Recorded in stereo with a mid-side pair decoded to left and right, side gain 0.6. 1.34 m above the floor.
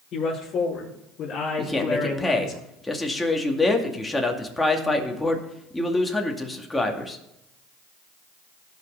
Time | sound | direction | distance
0.1 | a man speaking | 50° left | 5 m
1.6 | a man speaking | 10° left | 2 m